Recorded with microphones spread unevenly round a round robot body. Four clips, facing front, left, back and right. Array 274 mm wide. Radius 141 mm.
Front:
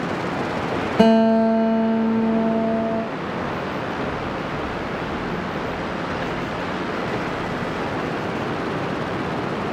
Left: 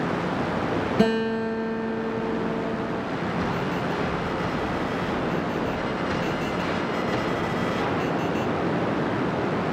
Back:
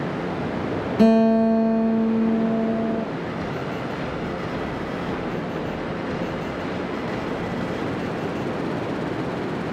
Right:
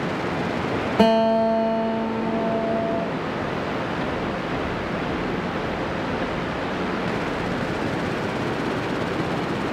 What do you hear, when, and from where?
1.0 s a guitar: 25° right, 1.9 m